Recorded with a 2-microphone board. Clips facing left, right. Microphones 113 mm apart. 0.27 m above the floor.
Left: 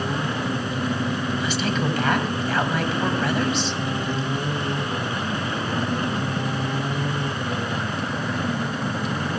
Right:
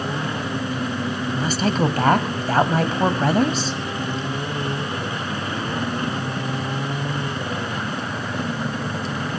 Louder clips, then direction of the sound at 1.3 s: Right 3 dB; 40° right (ahead or behind).